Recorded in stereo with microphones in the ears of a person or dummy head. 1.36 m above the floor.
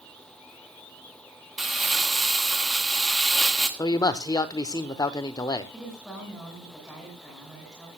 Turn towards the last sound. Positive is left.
turn(degrees=5)  # may be behind; listen again after turning